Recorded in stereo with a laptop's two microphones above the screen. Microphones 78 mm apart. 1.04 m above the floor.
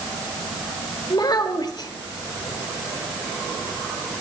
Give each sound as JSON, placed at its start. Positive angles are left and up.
{"t": 1.1, "sound": "a child speaking", "side_deg": 55, "distance_m": 1.5}